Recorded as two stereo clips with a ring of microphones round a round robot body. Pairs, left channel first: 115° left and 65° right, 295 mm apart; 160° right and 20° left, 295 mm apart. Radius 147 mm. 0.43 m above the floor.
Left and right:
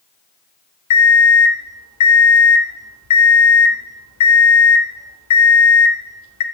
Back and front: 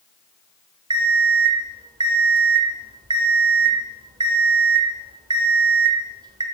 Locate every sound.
0.9 s an alarm clock: 95° left, 0.9 m